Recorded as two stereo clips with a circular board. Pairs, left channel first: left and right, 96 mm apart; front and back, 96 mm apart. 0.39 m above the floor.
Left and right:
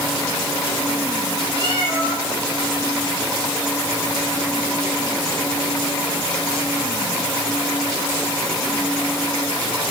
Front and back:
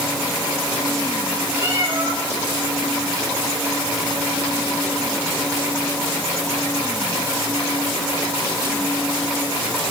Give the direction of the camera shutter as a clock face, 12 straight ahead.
No camera shutter in this recording.